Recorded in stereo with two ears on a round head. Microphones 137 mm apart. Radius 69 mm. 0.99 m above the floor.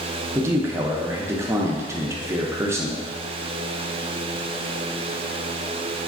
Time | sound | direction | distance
0.3 | a man speaking | 20° right (ahead or behind) | 0.5 m